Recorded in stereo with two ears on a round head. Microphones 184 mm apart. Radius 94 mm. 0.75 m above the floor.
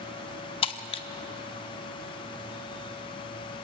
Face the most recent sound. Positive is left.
turn(degrees=25)  # may be behind; listen again after turning